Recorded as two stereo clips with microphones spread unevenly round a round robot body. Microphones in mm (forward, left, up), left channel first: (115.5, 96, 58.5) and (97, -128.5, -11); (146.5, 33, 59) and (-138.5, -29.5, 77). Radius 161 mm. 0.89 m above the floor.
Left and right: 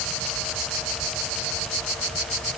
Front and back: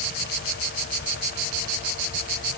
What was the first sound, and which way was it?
Only background noise.